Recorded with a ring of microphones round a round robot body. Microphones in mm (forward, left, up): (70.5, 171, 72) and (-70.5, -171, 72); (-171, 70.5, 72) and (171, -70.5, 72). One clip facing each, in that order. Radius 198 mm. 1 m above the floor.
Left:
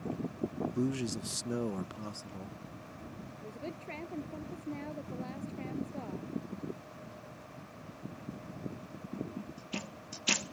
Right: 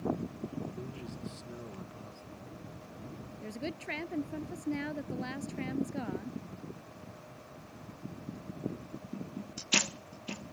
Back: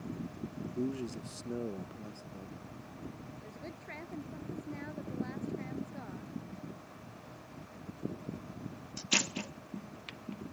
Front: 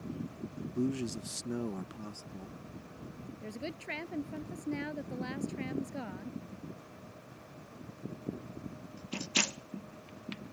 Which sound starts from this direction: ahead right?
A woman speaking, at 3.4 s.